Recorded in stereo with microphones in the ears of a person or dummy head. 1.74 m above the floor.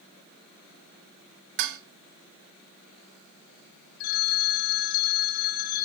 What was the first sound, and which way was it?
Dishes clattering, 60° right (ahead or behind).